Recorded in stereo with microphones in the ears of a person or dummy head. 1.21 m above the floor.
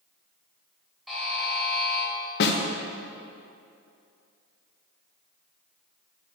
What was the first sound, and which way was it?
A buzzer, centre (ahead or behind).